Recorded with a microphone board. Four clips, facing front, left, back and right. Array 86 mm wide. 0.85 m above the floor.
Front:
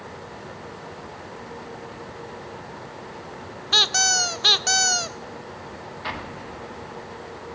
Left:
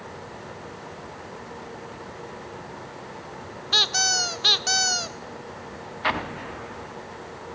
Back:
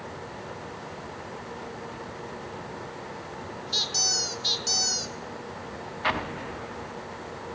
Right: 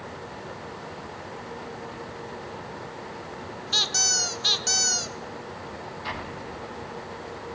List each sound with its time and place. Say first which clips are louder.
3.7 s a squeak: left 6 dB, front 14 dB; 20° left, 0.7 m
6.0 s an explosion: left 10 dB, back 5 dB; 115° left, 1.5 m